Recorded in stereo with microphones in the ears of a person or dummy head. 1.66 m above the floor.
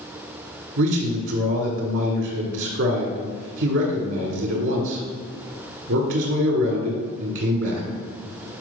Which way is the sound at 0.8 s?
80° right.